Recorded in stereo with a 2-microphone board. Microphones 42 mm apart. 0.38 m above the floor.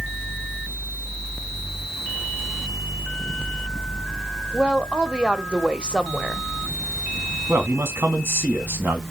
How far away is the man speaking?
About 4 m.